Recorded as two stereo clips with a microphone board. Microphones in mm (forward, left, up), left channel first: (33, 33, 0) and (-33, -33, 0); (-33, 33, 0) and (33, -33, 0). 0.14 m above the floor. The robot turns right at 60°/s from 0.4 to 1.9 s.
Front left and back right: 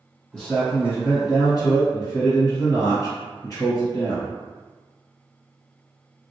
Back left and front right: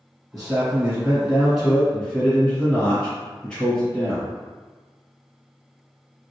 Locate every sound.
0.3 s a man speaking: 30° right, 1.7 m; by 4.3 s 60° left, 1.7 m